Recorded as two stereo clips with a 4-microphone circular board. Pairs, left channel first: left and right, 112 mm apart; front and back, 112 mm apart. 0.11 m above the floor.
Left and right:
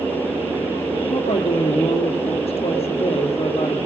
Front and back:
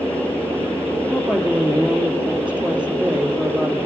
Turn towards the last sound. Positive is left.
turn(degrees=100)